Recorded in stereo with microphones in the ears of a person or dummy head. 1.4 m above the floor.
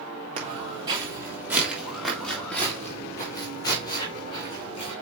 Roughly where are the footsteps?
Right.